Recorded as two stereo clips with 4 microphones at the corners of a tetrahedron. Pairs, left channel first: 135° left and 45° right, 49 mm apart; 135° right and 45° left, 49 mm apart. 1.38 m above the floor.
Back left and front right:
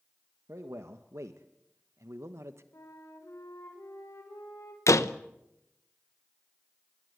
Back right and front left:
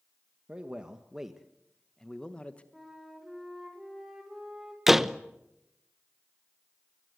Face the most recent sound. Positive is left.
turn(degrees=130)